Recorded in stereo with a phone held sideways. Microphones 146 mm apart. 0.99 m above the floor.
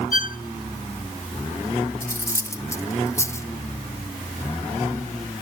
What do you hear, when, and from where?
0.1 s a violin: 70° left (ahead or behind), 0.7 m
2.0 s cutlery clinking: 20° left (ahead or behind), 1.4 m